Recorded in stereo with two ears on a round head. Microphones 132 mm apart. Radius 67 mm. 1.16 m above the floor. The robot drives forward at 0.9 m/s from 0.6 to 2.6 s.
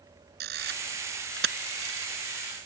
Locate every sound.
0.4 s a camera shutter: 70° right (ahead or behind); by 2.1 s 80° right